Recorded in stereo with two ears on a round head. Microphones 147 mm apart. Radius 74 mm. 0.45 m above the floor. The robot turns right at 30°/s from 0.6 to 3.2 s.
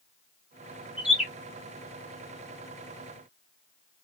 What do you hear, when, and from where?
1.0 s a bird: 5° right (ahead or behind), 0.9 m; by 1.3 s centre (ahead or behind), 0.9 m